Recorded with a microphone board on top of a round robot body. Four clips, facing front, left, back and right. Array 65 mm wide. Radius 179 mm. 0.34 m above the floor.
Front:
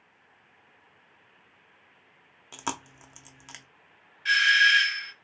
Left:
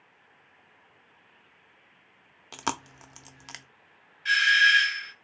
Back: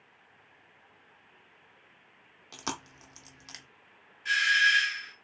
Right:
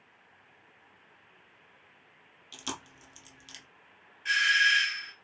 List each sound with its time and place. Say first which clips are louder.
2.5 s chewing: left 9 dB, front 3 dB; 70° left, 0.7 m
4.2 s a doorbell: left 4 dB, front 4 dB; 25° left, 1.6 m